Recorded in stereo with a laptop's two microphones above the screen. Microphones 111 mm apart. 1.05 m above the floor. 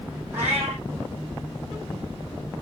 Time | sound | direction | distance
0.3 | a cat meowing | 15° right (ahead or behind) | 5.5 m